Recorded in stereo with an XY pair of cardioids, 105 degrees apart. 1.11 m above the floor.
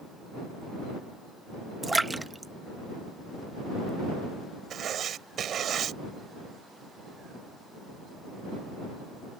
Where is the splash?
15° right.